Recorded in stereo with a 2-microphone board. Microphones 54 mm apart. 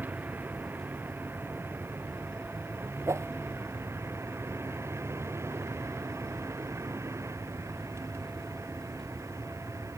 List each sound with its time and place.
0.0 s a vehicle: 35° right (ahead or behind); by 10.0 s 65° right (ahead or behind)
3.1 s a whoosh: 60° right (ahead or behind)